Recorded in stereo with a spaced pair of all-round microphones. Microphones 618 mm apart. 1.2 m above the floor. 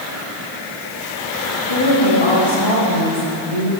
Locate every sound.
1.7 s a woman speaking: 60° left (ahead or behind), 3.5 m; by 3.7 s 65° left (ahead or behind), 4.5 m